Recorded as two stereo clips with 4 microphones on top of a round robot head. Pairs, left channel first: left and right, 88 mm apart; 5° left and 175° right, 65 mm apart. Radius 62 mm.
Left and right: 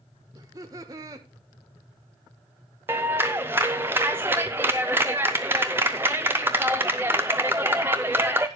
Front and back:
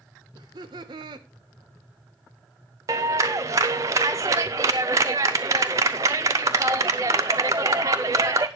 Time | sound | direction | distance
0.3 | laughter | 150° right | 1.2 m
2.9 | a clap | 155° right | 0.6 m